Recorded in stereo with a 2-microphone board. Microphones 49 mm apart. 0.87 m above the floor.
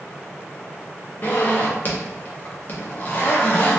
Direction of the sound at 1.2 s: 40° left (ahead or behind).